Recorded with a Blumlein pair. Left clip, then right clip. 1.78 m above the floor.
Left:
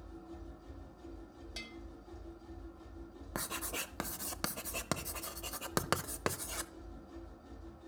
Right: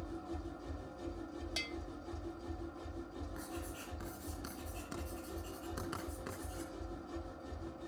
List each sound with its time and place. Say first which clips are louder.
0.0 s a machine running: right 6 dB; 25° right, 1.2 m
1.6 s a bell: right 6 dB; 20° right, 0.8 m
3.4 s writing: left 10 dB; 45° left, 0.7 m